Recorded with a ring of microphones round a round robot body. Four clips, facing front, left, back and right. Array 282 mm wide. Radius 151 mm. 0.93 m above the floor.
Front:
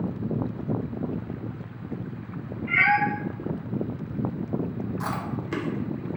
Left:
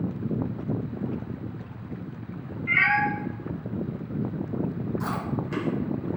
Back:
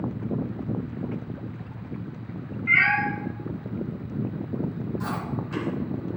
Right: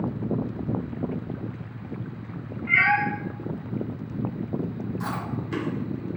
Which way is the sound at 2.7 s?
Straight behind.